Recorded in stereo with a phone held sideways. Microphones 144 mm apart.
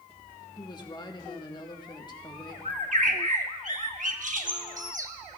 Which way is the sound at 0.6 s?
30° left (ahead or behind).